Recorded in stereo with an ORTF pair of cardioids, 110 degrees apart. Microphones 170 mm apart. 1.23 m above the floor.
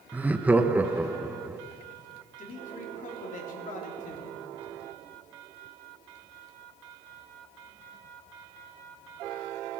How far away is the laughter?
About 0.7 m.